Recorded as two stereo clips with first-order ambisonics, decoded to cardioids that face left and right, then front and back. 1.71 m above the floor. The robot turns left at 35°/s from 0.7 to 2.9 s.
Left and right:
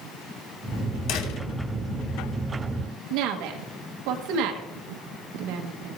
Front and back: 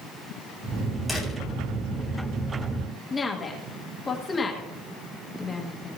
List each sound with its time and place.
1.1 s a door slam: 95° left, 3.5 m; by 1.4 s 85° left, 3.5 m
3.1 s a woman speaking: 75° right, 1.7 m